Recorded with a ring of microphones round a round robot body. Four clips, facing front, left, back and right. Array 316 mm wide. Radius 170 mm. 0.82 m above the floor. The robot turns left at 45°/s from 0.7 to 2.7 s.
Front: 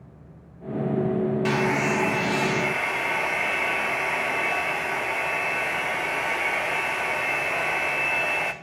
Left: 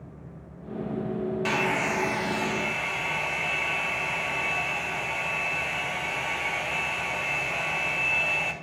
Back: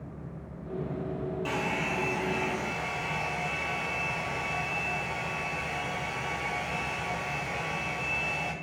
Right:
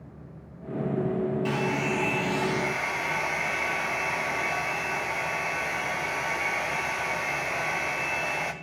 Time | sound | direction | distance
1.4 | a hair dryer | 40° left | 0.5 m